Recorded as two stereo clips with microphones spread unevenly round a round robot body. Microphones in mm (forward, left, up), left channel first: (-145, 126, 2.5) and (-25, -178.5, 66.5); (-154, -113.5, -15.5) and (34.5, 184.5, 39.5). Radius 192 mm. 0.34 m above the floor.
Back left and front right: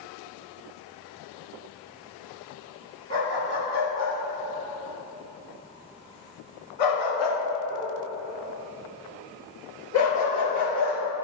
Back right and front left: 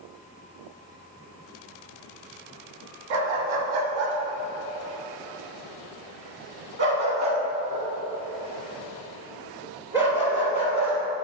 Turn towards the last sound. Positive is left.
turn(degrees=145)